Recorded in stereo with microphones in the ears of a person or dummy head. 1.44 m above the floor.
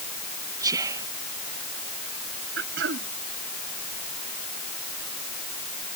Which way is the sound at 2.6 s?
75° right (ahead or behind).